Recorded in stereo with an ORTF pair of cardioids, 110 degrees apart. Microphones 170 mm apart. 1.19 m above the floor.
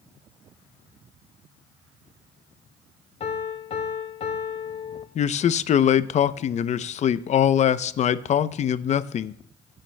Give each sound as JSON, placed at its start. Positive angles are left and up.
{"t": 3.2, "sound": "a piano", "azimuth_deg": 40, "distance_m": 2.0}
{"t": 5.2, "sound": "a man speaking", "azimuth_deg": 45, "distance_m": 0.7}